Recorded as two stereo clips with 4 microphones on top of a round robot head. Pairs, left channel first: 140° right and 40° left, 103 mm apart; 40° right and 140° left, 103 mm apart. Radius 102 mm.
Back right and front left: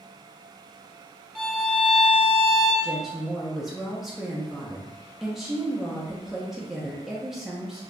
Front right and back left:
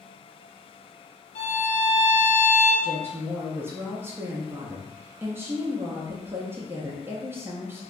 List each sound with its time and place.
1.4 s a violin: 50° right, 0.6 m
2.8 s a woman speaking: 125° left, 0.6 m